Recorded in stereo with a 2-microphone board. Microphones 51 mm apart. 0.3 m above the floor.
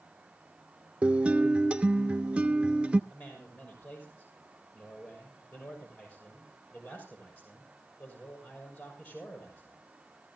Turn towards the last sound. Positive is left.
turn(degrees=45)  # may be behind; listen again after turning